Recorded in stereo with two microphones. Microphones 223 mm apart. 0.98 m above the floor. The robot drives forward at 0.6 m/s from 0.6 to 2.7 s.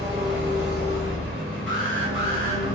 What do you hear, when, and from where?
0.0 s an engine running: 55° right (ahead or behind), 1.4 m
1.7 s an alarm: 60° right (ahead or behind), 0.8 m; by 2.6 s 45° right (ahead or behind), 1.0 m